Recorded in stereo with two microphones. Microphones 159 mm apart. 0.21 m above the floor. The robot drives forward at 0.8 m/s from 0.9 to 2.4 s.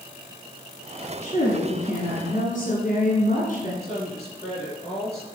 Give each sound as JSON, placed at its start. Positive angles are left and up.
{"t": 1.2, "sound": "a woman speaking", "side_deg": 55, "distance_m": 2.0}
{"t": 3.8, "sound": "a woman speaking", "side_deg": 45, "distance_m": 4.5}